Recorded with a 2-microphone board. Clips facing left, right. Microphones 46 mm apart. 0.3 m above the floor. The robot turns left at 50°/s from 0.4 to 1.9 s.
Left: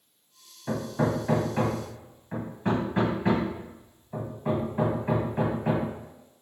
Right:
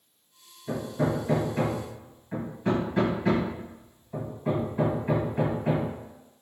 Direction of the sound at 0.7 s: 60° left (ahead or behind).